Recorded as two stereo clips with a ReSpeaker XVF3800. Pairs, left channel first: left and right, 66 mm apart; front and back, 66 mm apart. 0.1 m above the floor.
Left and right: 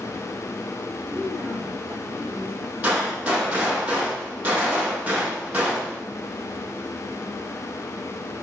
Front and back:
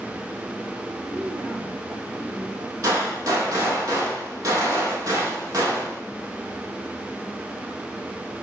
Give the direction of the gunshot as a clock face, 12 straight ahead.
5 o'clock.